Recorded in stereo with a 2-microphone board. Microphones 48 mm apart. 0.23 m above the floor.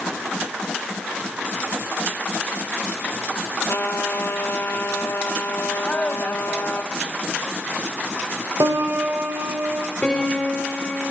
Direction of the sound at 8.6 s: 80° right.